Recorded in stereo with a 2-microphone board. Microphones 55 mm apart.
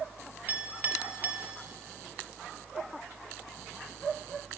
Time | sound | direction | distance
0.5 | a clink | 35° right (ahead or behind) | 0.7 m